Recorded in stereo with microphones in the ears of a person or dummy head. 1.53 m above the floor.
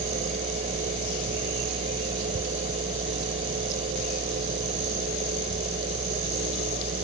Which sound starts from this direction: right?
A fan, at 0.0 s.